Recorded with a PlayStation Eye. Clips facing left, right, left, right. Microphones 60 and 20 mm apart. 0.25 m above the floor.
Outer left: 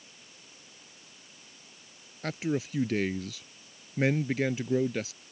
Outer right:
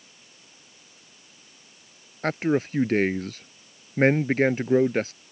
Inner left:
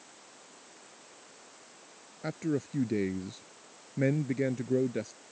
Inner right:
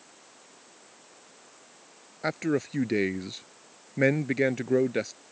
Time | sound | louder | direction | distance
2.2 | a man speaking | outer right 7 dB, inner right 5 dB | 45° right (ahead or behind) | ?